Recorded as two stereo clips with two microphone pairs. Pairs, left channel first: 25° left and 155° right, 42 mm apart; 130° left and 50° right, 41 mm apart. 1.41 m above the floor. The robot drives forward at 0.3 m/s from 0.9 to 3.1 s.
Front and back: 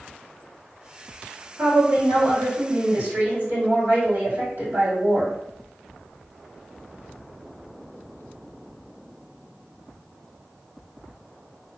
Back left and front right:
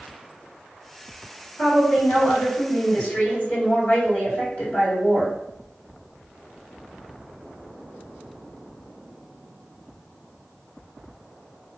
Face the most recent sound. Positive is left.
turn(degrees=175)